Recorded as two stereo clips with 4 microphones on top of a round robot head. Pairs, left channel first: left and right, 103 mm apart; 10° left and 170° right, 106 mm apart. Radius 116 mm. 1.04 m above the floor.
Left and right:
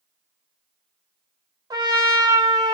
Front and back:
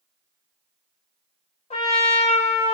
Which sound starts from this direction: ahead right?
A trumpet, at 1.7 s.